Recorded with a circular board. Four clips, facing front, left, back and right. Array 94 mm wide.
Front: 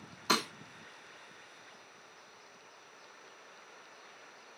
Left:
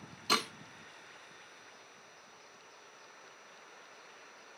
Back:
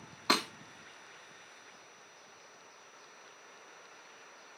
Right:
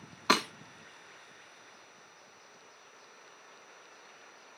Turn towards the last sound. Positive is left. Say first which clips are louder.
# right 5 dB, back 1 dB
turn(degrees=-110)